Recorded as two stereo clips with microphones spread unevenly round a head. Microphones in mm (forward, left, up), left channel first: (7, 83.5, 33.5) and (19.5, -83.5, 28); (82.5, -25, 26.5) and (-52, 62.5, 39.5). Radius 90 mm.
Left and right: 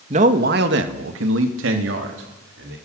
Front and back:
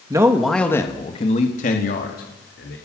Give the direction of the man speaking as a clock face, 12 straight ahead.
5 o'clock.